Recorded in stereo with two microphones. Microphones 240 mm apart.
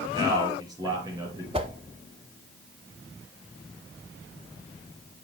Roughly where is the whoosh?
Right.